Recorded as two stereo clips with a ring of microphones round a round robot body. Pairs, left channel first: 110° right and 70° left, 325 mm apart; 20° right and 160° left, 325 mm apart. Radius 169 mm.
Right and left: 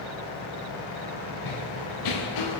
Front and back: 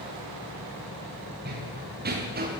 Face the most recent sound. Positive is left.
turn(degrees=-140)